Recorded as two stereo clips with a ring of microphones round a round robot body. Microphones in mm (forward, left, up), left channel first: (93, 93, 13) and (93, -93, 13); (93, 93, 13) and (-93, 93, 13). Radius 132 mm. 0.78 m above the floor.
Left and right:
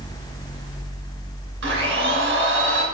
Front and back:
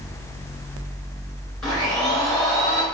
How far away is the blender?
About 3 m.